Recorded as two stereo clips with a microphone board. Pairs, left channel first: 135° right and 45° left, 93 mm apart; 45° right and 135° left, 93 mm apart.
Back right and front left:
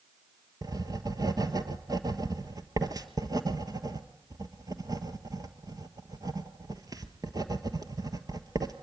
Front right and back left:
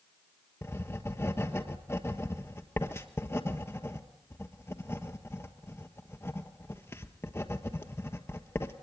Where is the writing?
10° left, 1.3 m.